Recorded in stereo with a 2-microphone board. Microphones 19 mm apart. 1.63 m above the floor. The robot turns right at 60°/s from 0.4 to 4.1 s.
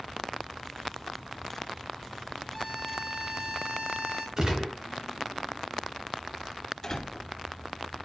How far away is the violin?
About 2 m.